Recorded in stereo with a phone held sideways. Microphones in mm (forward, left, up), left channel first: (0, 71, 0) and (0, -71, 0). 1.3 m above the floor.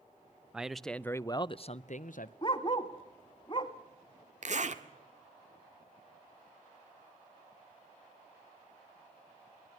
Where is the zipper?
55° right (ahead or behind), 1.5 m.